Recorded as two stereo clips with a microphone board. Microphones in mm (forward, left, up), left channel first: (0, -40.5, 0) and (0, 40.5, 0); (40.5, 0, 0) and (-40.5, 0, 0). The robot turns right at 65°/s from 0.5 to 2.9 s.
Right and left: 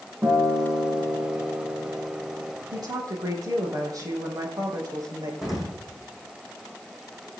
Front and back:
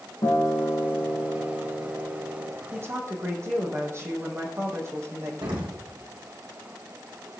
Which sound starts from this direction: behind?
An explosion, at 5.4 s.